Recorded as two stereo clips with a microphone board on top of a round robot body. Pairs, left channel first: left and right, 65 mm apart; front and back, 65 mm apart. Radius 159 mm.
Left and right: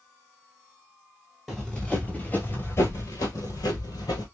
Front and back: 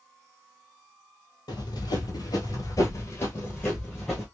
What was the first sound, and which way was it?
Running footsteps, 5° left.